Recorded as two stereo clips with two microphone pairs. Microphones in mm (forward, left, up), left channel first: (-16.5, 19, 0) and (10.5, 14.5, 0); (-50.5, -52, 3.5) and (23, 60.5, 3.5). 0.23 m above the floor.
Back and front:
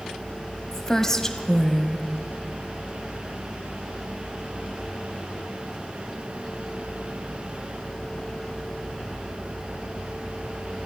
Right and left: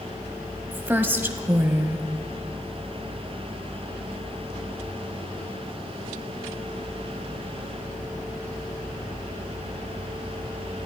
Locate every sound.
0.7 s a woman speaking: 115° left, 1.2 m